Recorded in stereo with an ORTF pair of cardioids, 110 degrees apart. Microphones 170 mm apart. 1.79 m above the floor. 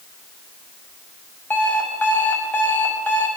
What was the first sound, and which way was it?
An alarm clock, 10° left.